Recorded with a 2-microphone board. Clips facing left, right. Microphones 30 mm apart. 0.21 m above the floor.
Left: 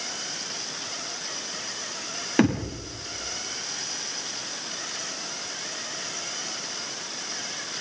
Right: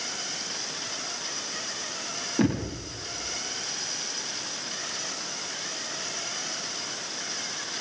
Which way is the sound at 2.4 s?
75° left (ahead or behind).